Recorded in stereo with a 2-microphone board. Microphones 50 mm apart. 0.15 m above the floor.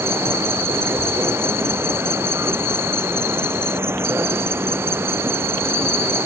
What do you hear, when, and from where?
0.0 s an insect: 55° right (ahead or behind)